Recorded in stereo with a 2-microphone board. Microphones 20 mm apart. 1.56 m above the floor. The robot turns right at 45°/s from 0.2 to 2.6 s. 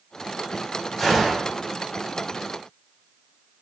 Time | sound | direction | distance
1.0 | a gunshot | 10° left (ahead or behind) | 1.3 m